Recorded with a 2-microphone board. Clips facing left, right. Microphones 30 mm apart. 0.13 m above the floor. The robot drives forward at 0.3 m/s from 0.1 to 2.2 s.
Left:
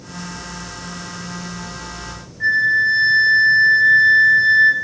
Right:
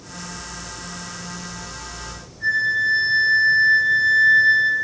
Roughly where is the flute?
Left.